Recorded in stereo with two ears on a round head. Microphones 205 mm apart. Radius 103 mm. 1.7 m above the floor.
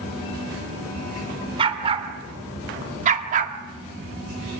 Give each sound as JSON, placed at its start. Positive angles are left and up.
{"t": 1.6, "sound": "a dog barking", "side_deg": -25, "distance_m": 2.5}